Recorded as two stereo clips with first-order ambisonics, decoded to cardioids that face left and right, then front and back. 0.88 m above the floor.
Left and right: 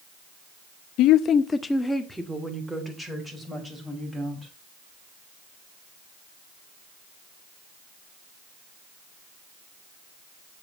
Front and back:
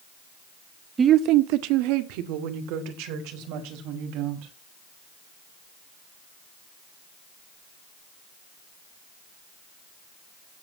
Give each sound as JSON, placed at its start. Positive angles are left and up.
{"t": 1.0, "sound": "a woman speaking", "azimuth_deg": 110, "distance_m": 0.5}